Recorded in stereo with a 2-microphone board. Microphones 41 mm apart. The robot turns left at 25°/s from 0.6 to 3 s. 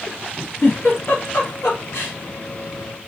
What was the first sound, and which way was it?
A giggle, 50° left (ahead or behind).